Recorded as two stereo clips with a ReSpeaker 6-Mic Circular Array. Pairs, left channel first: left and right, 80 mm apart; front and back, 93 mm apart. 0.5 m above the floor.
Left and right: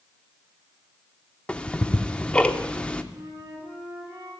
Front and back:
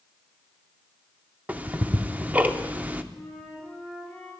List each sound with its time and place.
1.5 s ticking: 145° left, 0.6 m
3.1 s a flute: 80° right, 4.5 m